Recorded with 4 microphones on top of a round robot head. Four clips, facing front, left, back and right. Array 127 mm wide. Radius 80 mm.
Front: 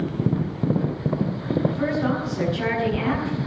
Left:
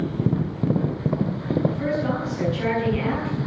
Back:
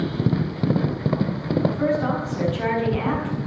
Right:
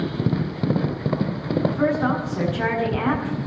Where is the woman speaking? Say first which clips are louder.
Right 3 dB, back 2 dB; 110° right, 9 m.